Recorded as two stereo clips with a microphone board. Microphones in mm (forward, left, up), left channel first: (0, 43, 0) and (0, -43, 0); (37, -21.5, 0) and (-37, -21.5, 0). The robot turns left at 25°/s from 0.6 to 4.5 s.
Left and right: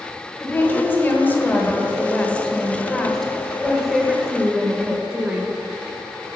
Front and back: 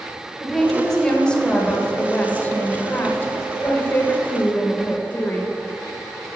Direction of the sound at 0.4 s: 75° left.